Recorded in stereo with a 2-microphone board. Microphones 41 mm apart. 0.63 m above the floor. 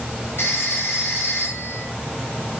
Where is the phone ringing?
75° left (ahead or behind), 9 m.